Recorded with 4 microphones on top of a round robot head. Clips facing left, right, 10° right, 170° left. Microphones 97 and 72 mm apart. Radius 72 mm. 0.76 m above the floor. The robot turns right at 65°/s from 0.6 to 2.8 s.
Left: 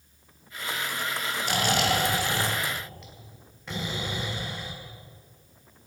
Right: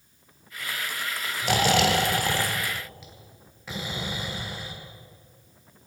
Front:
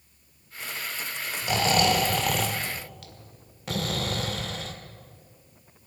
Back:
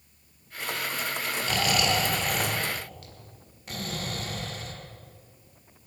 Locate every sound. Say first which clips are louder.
1.4 s snoring: right 5 dB, front 4 dB; 90° right, 1.5 m; by 4.7 s straight ahead, 1.5 m